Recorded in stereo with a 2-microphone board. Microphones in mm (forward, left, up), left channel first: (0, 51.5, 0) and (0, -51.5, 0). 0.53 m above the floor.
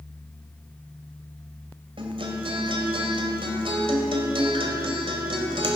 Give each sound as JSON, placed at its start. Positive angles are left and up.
{"t": 2.0, "sound": "a guitar", "side_deg": -70, "distance_m": 2.0}